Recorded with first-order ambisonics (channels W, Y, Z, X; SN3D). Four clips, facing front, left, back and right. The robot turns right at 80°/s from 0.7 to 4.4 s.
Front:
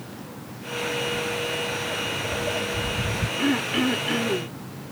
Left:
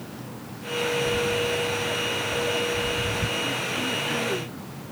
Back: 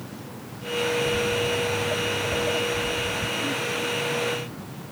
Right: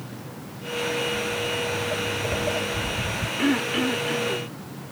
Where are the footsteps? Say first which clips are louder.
Left 2 dB, back 3 dB; 130° left; by 3.3 s 15° left.